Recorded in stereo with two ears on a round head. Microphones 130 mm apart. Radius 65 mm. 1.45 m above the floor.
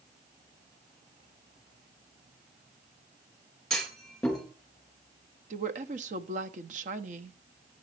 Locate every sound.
3.7 s a clunk: 5° left (ahead or behind), 4 m
5.5 s a woman speaking: 55° right (ahead or behind), 0.9 m